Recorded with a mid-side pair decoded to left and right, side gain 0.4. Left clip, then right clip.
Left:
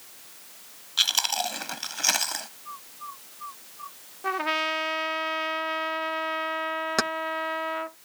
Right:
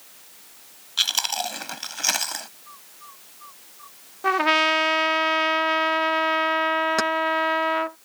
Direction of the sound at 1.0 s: 10° right.